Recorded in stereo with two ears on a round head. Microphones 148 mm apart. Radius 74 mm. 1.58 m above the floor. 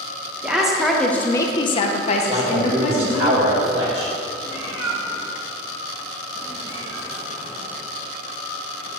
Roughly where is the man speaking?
Right.